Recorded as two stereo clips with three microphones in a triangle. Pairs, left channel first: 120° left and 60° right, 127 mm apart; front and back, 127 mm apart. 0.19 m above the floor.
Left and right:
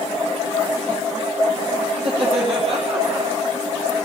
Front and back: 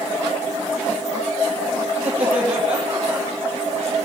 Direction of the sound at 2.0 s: 100° right.